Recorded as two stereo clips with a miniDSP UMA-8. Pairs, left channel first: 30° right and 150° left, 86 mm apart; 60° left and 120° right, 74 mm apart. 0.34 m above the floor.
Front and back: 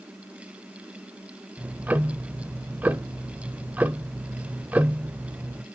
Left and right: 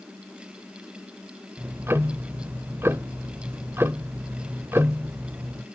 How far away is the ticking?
About 0.6 m.